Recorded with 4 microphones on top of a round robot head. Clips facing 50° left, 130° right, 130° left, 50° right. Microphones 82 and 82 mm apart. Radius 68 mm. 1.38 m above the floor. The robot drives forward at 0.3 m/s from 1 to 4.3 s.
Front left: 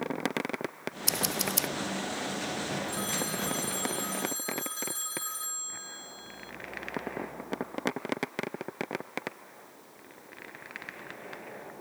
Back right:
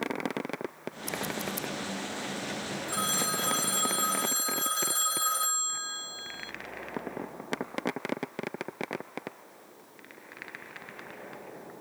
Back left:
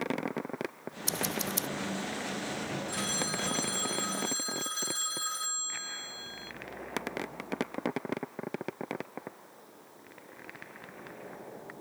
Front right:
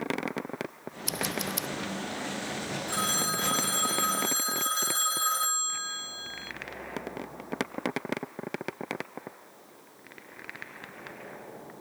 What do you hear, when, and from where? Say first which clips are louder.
1.1 s scissors: front left 1 dB, front right 1 dB; 65° left; by 1.7 s 70° left
2.9 s a phone ringing: back right 2 dB, front right 4 dB; 95° right; by 6.5 s 100° right